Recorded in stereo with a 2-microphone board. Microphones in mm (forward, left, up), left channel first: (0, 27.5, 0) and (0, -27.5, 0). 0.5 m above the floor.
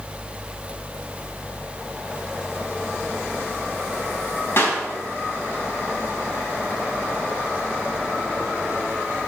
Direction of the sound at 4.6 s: 50° left (ahead or behind).